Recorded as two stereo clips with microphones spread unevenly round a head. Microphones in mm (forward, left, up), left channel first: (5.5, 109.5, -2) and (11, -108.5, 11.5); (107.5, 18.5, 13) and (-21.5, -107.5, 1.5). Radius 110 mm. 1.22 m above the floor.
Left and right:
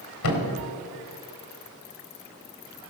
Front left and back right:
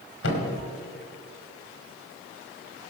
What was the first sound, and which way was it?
A thud, 80° left.